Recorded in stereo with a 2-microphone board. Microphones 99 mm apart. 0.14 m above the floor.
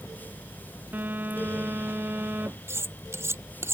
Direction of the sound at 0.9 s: 20° right (ahead or behind).